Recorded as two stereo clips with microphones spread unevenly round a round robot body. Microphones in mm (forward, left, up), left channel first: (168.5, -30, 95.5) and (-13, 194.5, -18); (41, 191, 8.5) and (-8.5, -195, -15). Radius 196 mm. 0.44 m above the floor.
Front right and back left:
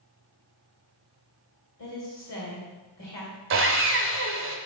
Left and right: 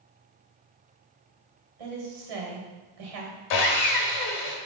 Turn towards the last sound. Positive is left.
turn(degrees=110)